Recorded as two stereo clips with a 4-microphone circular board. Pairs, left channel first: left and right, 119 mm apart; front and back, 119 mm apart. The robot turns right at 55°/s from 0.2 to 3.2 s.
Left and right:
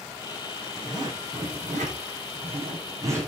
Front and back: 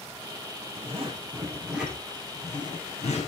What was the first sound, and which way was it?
A zipper, 155° right.